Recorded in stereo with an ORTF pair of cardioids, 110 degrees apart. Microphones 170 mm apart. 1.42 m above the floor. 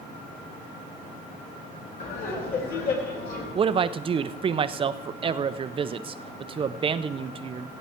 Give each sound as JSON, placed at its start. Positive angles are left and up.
{"t": 2.0, "sound": "laughter", "azimuth_deg": 60, "distance_m": 5.0}
{"t": 3.5, "sound": "a man speaking", "azimuth_deg": -30, "distance_m": 0.6}